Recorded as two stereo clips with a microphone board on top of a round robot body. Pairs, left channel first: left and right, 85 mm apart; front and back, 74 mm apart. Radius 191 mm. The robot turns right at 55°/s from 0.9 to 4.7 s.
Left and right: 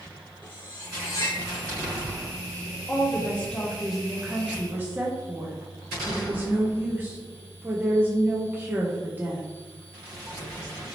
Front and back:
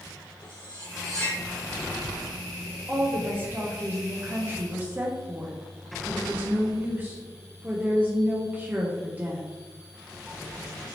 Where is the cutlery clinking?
20° left, 1.8 m; by 1.4 s 50° left, 1.8 m.